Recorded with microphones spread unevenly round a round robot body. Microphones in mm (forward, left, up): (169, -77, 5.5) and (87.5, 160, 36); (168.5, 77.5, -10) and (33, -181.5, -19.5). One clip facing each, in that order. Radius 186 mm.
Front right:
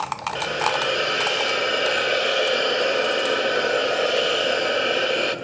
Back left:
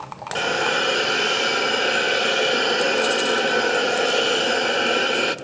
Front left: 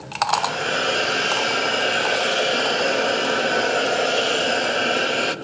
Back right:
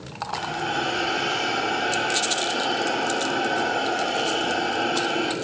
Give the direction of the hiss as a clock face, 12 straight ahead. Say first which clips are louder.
Back left 3 dB, front left 2 dB; 10 o'clock.